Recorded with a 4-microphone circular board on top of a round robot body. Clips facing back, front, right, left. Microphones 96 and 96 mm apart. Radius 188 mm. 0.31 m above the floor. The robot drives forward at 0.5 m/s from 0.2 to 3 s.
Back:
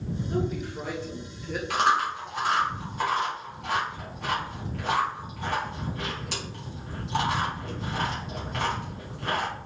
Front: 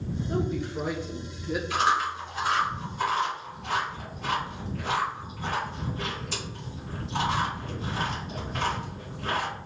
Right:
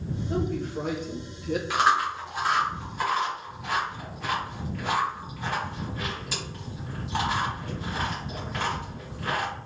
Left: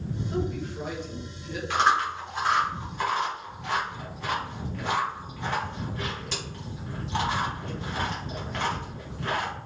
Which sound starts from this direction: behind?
Chewing, at 1.7 s.